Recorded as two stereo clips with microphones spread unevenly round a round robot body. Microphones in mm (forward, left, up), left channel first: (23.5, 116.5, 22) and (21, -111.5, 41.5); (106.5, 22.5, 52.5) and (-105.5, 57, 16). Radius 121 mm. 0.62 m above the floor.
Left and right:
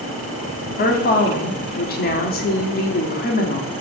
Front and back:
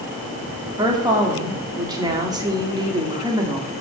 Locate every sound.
0.8 s a woman speaking: 115° left, 1.7 m